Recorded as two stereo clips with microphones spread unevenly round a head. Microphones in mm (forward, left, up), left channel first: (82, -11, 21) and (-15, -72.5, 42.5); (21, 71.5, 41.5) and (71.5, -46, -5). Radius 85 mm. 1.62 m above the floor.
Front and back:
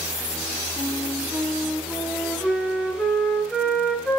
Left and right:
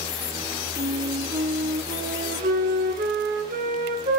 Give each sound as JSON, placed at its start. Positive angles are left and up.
{"t": 0.8, "sound": "a flute", "azimuth_deg": -55, "distance_m": 5.0}